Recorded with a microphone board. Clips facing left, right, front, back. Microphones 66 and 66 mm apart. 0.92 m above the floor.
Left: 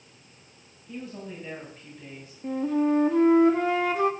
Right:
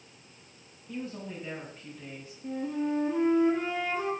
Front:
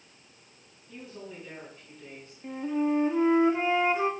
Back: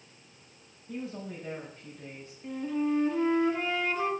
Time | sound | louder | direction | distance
0.9 | a woman speaking | even, back 5 dB | 175° right | 6 m
2.4 | a flute | left 7 dB, front 2 dB | 70° left | 1.2 m